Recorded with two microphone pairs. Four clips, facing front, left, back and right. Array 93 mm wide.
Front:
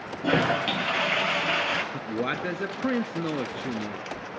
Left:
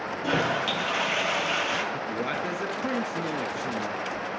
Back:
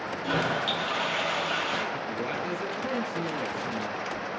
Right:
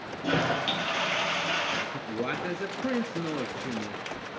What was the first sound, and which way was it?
A toilet flushing, 5° left.